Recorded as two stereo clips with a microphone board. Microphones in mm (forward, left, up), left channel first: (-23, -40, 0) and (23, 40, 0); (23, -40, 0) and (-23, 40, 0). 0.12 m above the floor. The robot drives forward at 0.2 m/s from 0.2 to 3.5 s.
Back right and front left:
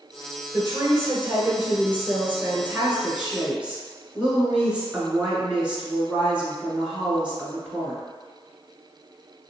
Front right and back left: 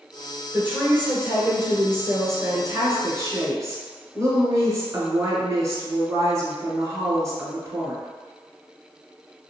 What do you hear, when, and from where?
0.5 s a woman speaking: 70° left, 1.2 m; by 8.0 s 130° left, 1.3 m